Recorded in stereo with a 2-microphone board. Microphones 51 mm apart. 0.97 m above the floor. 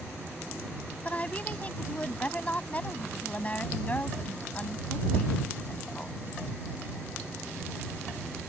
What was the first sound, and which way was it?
A woman speaking, 25° left (ahead or behind).